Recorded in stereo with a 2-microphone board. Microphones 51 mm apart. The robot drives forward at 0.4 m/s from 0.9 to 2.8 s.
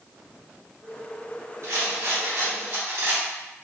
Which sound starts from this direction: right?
A rattle, at 1.6 s.